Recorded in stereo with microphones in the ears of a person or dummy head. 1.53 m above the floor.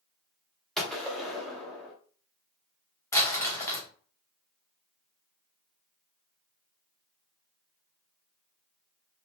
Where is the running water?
No running water in this recording.